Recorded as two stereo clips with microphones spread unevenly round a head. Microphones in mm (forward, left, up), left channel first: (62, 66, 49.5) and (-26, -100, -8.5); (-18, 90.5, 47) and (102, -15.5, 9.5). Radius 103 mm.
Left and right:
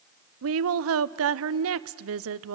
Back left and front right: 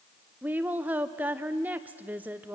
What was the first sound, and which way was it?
A woman speaking, 125° right.